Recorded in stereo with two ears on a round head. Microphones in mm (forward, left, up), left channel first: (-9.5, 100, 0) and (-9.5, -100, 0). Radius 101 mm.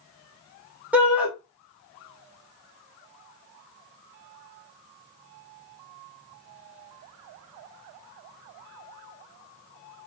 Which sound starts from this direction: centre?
A shout, at 0.9 s.